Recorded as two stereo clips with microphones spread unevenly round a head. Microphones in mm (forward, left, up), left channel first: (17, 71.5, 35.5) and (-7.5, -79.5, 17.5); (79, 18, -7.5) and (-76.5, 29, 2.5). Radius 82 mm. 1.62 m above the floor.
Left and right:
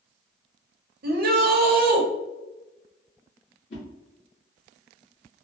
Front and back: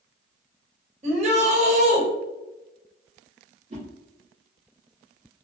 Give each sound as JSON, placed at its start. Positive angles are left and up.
{"t": 1.0, "sound": "a shout", "azimuth_deg": -130, "distance_m": 0.8}
{"t": 3.7, "sound": "a whoosh", "azimuth_deg": 130, "distance_m": 1.8}